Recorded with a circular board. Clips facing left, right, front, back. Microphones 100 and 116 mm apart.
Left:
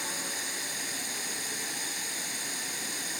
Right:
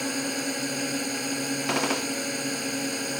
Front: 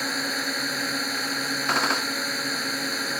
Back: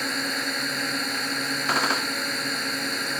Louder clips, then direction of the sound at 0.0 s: Right 10 dB, even; 85° right.